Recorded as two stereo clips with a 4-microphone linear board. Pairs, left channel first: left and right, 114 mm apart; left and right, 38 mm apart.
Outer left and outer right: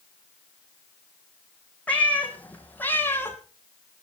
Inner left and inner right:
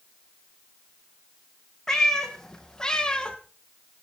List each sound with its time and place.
1.9 s a cat meowing: 10° left (ahead or behind), 3 m; by 3.4 s 20° left (ahead or behind), 1.5 m